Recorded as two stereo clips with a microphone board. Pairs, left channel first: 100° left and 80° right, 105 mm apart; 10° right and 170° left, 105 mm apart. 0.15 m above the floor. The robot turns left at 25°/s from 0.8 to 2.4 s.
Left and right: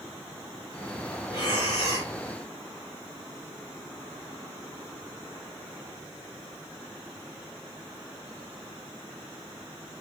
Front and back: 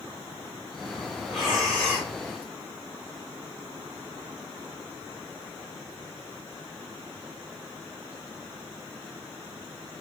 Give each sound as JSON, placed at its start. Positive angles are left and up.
{"t": 1.3, "sound": "breathing", "azimuth_deg": 80, "distance_m": 2.5}